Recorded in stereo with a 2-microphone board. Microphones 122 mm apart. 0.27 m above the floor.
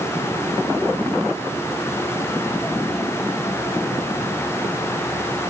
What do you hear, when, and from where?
Only background noise.